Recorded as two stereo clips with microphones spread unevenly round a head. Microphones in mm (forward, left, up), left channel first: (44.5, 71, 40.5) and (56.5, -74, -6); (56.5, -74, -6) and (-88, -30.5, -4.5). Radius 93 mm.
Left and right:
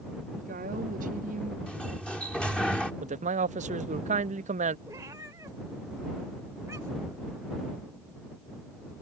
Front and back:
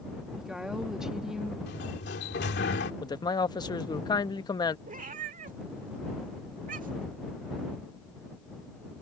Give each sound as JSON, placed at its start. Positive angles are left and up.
{"t": 0.4, "sound": "a woman speaking", "azimuth_deg": -110}
{"t": 1.7, "sound": "a sliding door", "azimuth_deg": 5}
{"t": 3.0, "sound": "a man speaking", "azimuth_deg": -80}
{"t": 4.9, "sound": "a cat meowing", "azimuth_deg": -165}